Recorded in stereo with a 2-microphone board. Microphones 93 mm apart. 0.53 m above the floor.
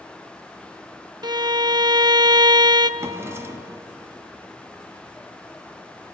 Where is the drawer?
30° right (ahead or behind), 1.5 m.